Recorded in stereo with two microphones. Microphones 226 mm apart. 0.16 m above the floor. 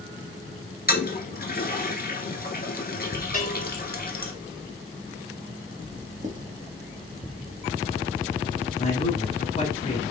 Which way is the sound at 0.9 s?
45° left (ahead or behind).